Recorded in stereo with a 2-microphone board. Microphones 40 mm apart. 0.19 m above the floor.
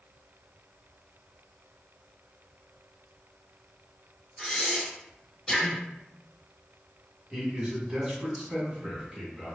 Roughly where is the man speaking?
Centre.